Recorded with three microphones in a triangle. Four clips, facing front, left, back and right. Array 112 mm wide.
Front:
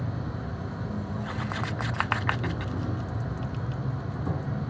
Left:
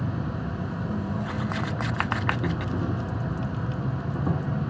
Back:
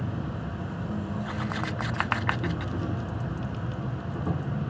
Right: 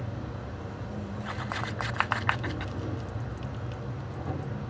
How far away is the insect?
About 0.9 m.